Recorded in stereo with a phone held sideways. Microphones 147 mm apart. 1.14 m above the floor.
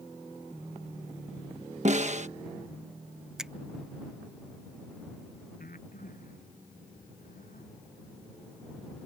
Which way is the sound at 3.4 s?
5° right (ahead or behind).